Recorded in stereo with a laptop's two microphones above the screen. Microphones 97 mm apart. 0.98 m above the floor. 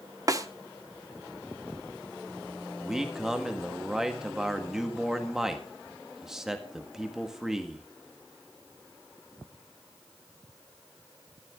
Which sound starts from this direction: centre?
A man speaking, at 2.8 s.